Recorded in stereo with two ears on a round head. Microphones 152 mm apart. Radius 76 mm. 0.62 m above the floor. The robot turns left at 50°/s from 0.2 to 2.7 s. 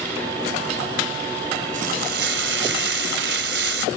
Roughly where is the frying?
Ahead right.